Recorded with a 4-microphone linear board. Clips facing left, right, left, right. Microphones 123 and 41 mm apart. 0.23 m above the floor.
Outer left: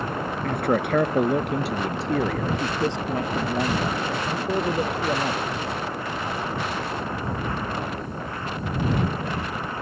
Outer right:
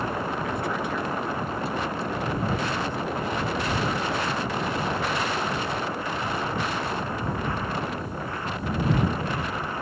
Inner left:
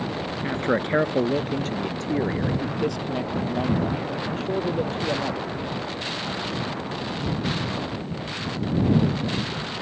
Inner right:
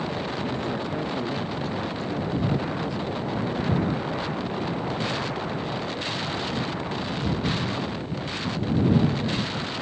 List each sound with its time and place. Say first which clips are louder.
0.4 s a man speaking: outer left 5 dB, inner left 4 dB; 55° left (ahead or behind); by 5.5 s 70° left (ahead or behind)